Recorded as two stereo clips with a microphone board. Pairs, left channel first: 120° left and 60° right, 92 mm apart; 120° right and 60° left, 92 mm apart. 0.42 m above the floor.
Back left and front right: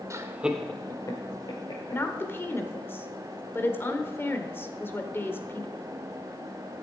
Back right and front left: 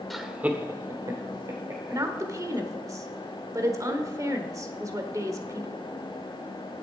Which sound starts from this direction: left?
A woman speaking, at 1.9 s.